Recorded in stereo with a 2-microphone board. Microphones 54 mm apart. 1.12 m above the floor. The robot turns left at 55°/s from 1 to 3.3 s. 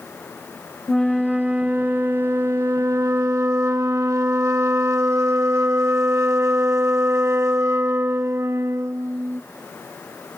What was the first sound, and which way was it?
A flute, 15° left.